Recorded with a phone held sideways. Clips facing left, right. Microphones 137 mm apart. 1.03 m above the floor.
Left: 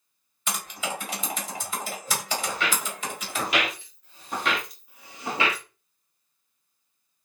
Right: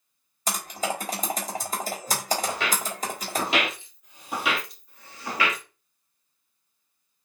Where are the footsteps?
35° right (ahead or behind), 2.5 m; by 5.6 s 35° left (ahead or behind), 1.2 m.